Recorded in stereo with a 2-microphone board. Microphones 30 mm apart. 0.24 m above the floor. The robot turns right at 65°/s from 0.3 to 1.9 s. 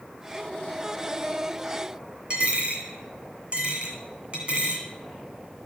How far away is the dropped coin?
About 1.7 m.